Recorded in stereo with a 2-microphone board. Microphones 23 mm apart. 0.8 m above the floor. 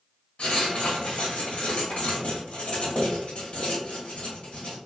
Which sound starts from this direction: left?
Writing, at 0.4 s.